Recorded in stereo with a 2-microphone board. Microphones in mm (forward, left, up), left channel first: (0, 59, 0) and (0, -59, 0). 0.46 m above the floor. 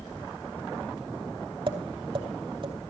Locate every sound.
1.7 s tapping: 45° right (ahead or behind), 2.5 m